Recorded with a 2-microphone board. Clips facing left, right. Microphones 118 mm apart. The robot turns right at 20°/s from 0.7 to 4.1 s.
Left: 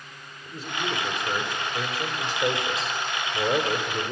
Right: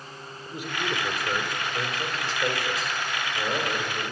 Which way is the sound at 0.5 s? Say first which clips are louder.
Even; 15° right.